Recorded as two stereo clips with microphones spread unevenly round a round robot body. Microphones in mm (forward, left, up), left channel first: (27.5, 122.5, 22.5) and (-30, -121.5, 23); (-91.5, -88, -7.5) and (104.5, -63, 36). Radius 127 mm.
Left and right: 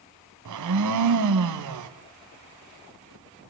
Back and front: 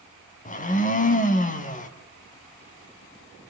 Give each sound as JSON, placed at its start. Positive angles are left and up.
{"t": 0.5, "sound": "a blender", "azimuth_deg": -120, "distance_m": 2.5}